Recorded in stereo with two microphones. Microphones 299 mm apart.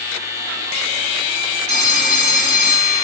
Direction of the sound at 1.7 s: 35° left (ahead or behind).